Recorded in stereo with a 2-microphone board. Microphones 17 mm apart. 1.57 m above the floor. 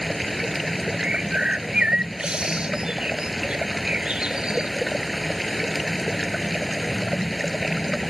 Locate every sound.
0.0 s running water: 5° right (ahead or behind)
1.0 s a bird: 65° right (ahead or behind)